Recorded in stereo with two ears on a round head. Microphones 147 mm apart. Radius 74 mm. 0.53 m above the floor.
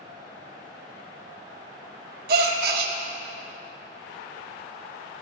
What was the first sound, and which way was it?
A gasp, 60° right (ahead or behind).